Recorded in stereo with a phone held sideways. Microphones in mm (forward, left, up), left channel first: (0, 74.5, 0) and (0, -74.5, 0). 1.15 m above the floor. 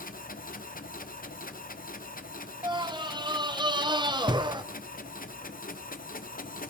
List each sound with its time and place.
0.0 s a machine running: 75° left (ahead or behind), 0.8 m
2.6 s a scream: 30° right (ahead or behind), 0.7 m